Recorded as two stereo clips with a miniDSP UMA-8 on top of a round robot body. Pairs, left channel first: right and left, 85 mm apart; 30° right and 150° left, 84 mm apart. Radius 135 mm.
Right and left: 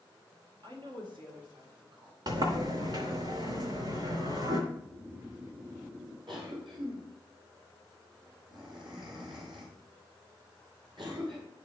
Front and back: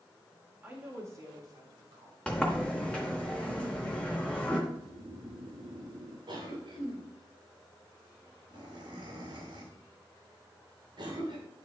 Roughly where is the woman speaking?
Left.